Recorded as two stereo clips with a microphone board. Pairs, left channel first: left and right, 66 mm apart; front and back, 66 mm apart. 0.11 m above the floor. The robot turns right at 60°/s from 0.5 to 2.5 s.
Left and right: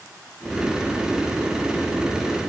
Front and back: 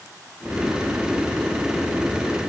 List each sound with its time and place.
Only background noise.